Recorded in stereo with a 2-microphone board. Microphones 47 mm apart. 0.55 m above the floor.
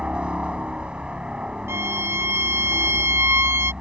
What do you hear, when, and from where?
0.0 s a helicopter: 20° right (ahead or behind)
1.7 s a violin: 75° right (ahead or behind)